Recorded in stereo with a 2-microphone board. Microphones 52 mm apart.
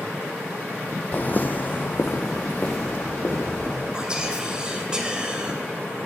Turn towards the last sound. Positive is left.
turn(degrees=-15)  # may be behind; listen again after turning